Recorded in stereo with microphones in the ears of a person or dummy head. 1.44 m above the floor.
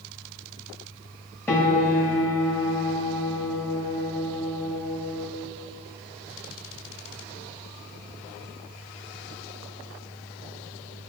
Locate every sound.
1.5 s a piano: 10° left (ahead or behind), 0.9 m